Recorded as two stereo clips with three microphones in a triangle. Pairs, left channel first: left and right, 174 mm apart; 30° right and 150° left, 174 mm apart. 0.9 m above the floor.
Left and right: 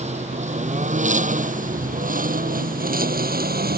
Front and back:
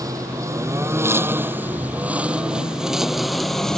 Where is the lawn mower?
140° right; by 3.8 s 115° right.